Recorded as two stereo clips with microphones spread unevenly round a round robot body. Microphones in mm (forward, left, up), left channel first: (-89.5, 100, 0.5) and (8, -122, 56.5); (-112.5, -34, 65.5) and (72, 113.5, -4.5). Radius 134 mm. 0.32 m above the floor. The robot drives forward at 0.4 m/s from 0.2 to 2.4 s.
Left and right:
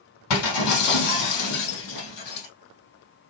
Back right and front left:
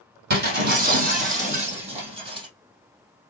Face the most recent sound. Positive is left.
turn(degrees=110)